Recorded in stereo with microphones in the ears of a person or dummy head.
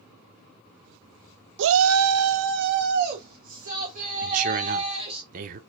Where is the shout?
70° right (ahead or behind), 0.6 m; by 5.2 s 30° right (ahead or behind), 2 m.